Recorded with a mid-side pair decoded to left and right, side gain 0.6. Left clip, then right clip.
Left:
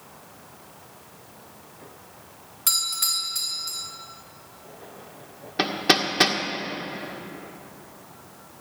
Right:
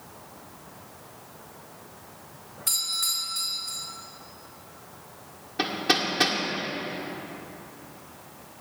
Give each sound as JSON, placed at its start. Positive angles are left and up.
{"t": 2.7, "sound": "a doorbell", "azimuth_deg": 60, "distance_m": 3.0}
{"t": 5.6, "sound": "hammering", "azimuth_deg": 35, "distance_m": 1.7}